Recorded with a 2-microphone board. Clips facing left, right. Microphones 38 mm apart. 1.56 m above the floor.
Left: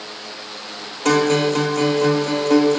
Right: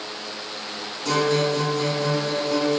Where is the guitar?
70° left (ahead or behind), 0.7 m.